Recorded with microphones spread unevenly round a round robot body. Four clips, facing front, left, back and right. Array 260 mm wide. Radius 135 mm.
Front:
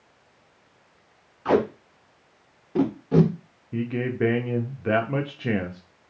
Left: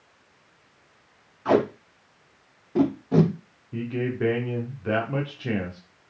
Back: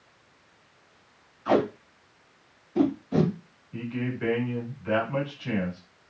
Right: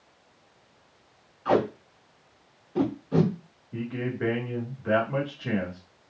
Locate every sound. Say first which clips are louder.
1.4 s tape being pulled: left 2 dB, front 2 dB; 35° left, 2.5 m
3.7 s a man speaking: left 3 dB, front 5 dB; 15° left, 1.3 m